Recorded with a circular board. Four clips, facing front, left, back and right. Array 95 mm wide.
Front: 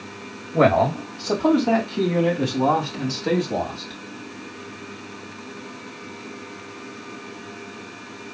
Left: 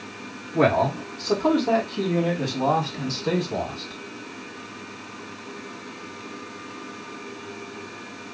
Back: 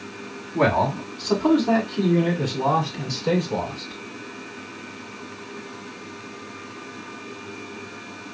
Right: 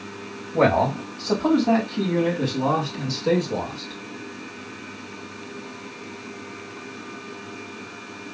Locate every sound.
0.5 s a man speaking: 20° right, 1.9 m; by 4.0 s 15° right, 3.5 m